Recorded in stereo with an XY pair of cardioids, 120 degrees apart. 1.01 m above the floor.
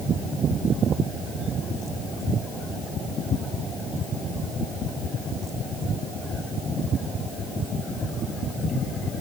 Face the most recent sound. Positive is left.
No sound to turn to.